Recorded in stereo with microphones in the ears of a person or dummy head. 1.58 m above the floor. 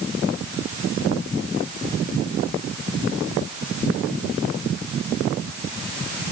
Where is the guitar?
No guitar in this recording.